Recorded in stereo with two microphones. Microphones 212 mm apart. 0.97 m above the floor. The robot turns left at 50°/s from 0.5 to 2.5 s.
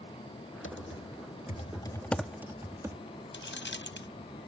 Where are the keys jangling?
60° left (ahead or behind).